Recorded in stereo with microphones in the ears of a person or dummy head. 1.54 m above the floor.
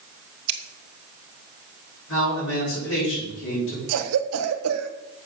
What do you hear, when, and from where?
0.5 s scissors: 55° right (ahead or behind), 1.2 m
2.1 s a man speaking: 75° left (ahead or behind), 6.5 m
3.9 s a cough: 85° right, 1.4 m